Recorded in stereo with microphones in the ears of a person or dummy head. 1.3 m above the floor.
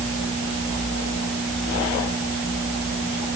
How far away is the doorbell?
I don't hear a doorbell.